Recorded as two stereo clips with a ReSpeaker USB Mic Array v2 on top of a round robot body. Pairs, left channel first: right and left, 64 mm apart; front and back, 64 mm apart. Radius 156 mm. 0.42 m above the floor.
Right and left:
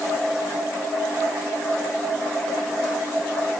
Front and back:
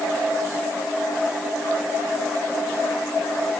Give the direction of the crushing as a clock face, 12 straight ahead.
I don't hear crushing.